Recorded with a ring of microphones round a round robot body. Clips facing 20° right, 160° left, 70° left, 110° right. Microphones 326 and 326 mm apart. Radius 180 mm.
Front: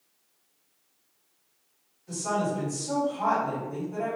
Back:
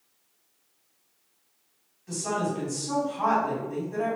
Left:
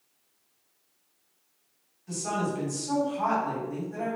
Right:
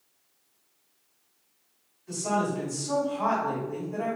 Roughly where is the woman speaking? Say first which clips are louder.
Even, right 2 dB; behind left.